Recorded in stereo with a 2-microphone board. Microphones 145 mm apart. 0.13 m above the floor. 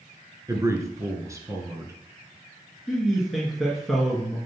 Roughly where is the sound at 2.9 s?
Centre.